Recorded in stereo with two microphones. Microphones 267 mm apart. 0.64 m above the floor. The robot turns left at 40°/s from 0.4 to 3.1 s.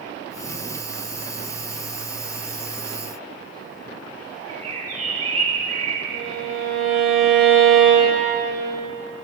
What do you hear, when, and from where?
4.5 s a bird: 65° right (ahead or behind), 2.5 m
6.1 s a violin: centre (ahead or behind), 5.5 m